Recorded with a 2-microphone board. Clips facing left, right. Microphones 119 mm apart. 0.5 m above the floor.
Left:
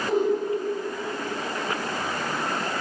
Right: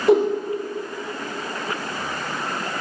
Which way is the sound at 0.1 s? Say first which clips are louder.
Right 8 dB; 80° right.